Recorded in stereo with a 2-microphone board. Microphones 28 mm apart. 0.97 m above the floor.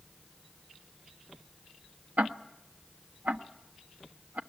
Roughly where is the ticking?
Right.